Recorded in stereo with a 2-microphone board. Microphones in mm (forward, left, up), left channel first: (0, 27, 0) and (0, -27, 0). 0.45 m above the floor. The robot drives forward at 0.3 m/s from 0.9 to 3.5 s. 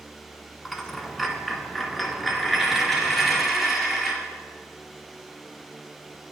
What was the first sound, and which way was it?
A dropped coin, centre (ahead or behind).